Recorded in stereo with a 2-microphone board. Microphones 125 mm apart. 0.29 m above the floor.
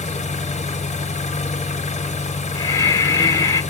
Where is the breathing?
35° left (ahead or behind), 1.2 m.